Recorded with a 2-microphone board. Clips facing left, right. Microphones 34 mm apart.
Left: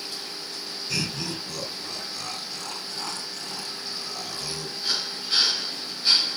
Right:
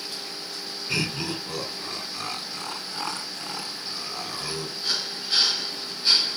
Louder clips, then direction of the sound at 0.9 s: Right 3 dB; 25° right (ahead or behind).